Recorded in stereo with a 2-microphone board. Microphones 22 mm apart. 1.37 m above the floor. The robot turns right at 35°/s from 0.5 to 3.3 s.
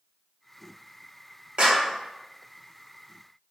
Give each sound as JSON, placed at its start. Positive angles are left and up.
{"t": 1.6, "sound": "a clap", "side_deg": -50, "distance_m": 0.9}